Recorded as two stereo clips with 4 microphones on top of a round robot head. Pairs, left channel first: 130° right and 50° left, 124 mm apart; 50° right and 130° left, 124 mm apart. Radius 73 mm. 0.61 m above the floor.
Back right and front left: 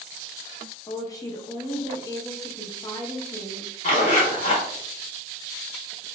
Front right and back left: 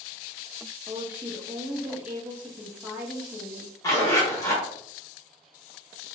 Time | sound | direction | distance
0.9 | a woman speaking | 160° right | 0.7 m
3.8 | a zipper | 115° right | 1.3 m